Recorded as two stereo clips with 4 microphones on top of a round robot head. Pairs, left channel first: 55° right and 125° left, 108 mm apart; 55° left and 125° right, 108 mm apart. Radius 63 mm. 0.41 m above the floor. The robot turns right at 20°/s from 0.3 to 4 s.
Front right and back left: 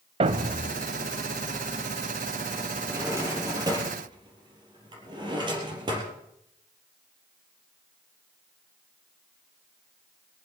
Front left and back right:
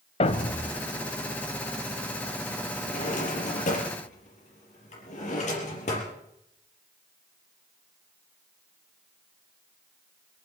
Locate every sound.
0.2 s a thud: 90° left, 0.9 m; by 0.8 s 100° left, 0.9 m
2.9 s a drawer: 50° left, 4 m; by 6.1 s 75° left, 4 m